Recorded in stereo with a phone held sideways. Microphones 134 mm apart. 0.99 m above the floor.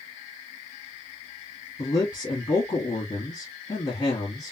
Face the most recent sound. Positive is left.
turn(degrees=35)  # may be behind; listen again after turning